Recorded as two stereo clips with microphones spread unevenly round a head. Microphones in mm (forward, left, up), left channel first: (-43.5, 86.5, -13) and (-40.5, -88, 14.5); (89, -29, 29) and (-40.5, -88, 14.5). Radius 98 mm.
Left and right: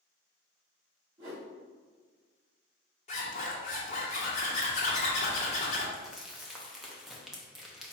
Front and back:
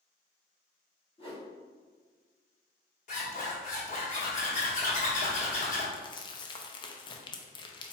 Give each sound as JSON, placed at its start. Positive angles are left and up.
{"t": 1.2, "sound": "a whoosh", "azimuth_deg": -20, "distance_m": 1.2}
{"t": 3.1, "sound": "a zipper", "azimuth_deg": 35, "distance_m": 1.1}
{"t": 5.9, "sound": "crumpling", "azimuth_deg": 15, "distance_m": 0.6}